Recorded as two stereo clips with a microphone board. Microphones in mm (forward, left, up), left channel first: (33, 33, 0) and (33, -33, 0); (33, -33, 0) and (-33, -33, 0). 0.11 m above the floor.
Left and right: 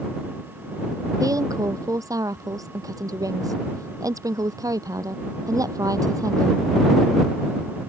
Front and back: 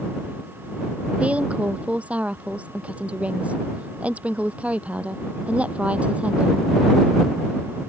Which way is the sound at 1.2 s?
110° right.